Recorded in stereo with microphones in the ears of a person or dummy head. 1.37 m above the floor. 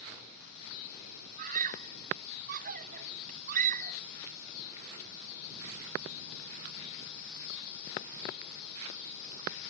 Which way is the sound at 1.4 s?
45° right (ahead or behind).